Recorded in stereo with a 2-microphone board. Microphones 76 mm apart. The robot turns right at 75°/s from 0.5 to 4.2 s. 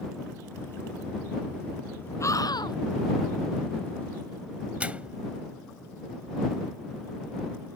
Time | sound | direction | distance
2.2 | a scream | 40° left | ?
4.8 | a microwave | 20° right (ahead or behind) | ?